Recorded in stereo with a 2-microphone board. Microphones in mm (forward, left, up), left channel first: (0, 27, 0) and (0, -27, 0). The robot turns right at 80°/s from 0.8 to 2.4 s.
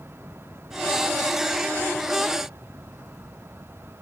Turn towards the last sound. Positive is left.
No sound to turn to.